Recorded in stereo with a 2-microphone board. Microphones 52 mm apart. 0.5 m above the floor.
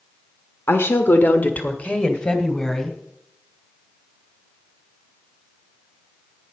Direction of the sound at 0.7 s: 50° left (ahead or behind).